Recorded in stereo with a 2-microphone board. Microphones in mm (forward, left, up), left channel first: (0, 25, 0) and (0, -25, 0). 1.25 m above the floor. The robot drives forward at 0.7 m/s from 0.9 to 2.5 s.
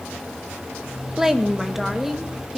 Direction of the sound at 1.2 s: 10° right (ahead or behind).